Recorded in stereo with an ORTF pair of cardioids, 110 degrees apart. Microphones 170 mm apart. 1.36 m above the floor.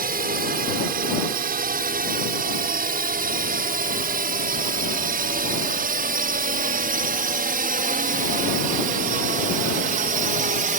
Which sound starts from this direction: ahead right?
A drone, at 0.0 s.